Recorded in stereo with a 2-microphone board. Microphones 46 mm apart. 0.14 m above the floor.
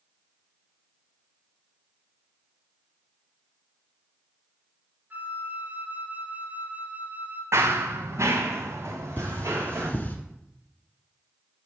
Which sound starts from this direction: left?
Cutlery clinking, at 9.2 s.